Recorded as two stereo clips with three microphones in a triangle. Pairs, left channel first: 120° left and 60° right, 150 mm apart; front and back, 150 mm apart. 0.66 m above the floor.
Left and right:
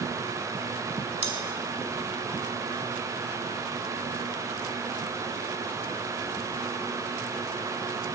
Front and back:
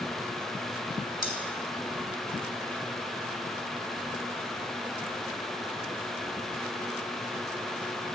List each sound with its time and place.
1.2 s cutlery clinking: 15° right, 1.5 m